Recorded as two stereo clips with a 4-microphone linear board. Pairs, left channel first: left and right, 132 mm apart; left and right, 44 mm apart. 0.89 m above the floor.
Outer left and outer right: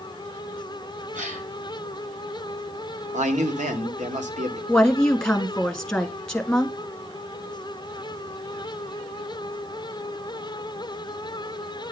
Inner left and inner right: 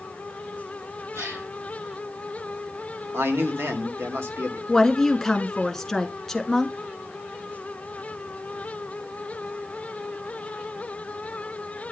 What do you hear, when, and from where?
1.1 s a gasp: 75° right (ahead or behind), 4 m
3.1 s a man speaking: 70° right (ahead or behind), 1.7 m
4.7 s a woman speaking: 5° left (ahead or behind), 1.4 m